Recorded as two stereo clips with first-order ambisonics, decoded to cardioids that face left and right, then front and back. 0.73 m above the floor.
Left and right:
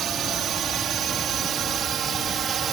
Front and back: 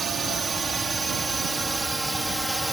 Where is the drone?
120° right; by 2.7 s 95° right.